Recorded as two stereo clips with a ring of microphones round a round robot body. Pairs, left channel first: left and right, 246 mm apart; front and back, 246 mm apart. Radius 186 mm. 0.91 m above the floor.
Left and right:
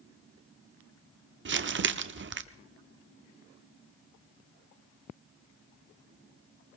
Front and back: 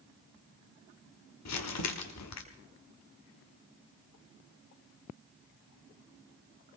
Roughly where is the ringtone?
I don't hear a ringtone.